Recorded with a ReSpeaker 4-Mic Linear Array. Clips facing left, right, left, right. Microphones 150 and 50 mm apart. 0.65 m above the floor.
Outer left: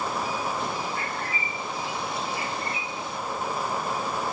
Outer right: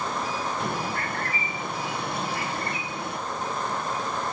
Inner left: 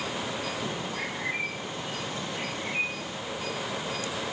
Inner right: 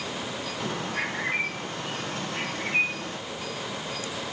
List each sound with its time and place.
0.6 s a bird: 65° right (ahead or behind), 1.4 m